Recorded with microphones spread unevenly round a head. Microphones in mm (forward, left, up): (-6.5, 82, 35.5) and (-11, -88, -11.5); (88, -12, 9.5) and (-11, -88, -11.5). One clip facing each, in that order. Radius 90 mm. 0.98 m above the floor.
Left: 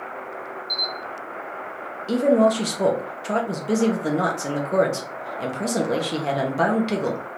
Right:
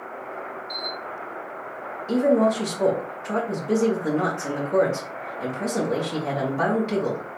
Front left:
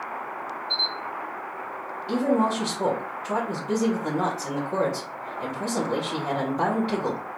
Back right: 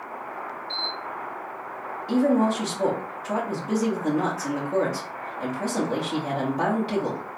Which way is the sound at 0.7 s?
150° left.